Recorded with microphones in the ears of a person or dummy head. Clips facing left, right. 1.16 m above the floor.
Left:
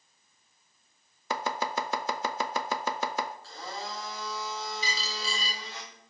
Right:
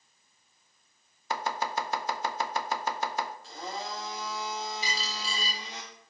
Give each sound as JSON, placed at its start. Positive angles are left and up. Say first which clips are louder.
{"t": 1.3, "sound": "chopping", "louder": "left 1 dB", "side_deg": 70, "distance_m": 0.5}
{"t": 3.4, "sound": "a blender", "louder": "right 2 dB", "side_deg": -15, "distance_m": 1.8}
{"t": 4.8, "sound": "a dropped coin", "louder": "even", "side_deg": 70, "distance_m": 3.0}